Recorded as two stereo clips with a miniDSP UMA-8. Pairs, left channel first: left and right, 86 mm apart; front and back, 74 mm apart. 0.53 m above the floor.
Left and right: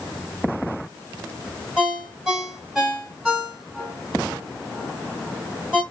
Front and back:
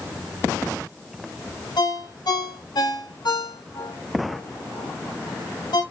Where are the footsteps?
I don't hear footsteps.